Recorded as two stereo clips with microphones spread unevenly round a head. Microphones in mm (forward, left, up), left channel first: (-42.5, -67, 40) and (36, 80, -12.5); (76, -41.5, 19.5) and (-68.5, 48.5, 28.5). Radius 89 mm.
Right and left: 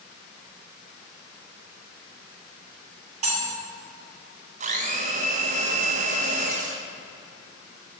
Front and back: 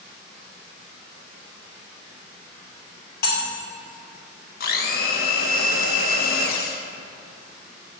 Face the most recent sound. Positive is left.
turn(degrees=5)